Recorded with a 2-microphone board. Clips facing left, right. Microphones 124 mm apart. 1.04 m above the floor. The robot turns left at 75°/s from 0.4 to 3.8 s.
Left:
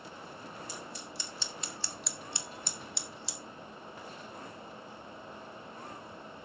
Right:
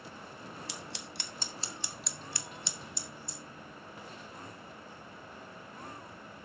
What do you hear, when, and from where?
0.7 s scissors: 75° right (ahead or behind), 0.8 m; by 3.4 s 80° left, 0.8 m